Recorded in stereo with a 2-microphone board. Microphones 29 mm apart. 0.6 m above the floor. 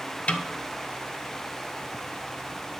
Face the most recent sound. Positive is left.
turn(degrees=50)  # may be behind; listen again after turning